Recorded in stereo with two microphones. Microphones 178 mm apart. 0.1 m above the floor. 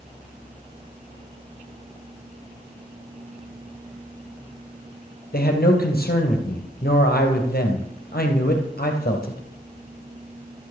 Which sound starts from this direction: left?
A man speaking, at 5.3 s.